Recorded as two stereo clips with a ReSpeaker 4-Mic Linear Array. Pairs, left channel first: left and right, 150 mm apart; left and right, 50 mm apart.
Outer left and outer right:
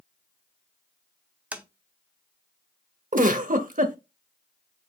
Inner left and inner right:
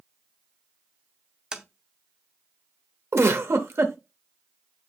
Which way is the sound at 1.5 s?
10° right (ahead or behind).